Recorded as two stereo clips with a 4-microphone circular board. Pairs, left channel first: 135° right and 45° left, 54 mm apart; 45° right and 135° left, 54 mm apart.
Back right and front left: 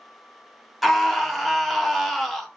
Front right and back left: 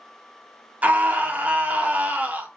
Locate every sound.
0.8 s a scream: 140° left, 0.5 m